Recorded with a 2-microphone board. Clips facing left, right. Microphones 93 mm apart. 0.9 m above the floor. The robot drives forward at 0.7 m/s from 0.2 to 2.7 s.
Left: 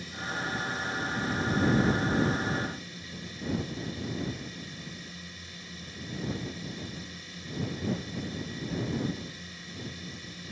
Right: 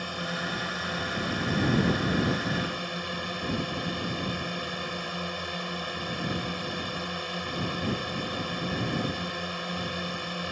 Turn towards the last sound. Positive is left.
turn(degrees=-65)  # may be behind; listen again after turning